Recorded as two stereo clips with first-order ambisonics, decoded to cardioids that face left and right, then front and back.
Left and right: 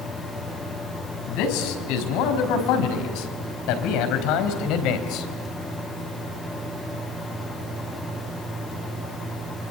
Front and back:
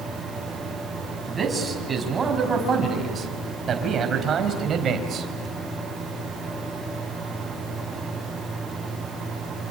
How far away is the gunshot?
I don't hear a gunshot.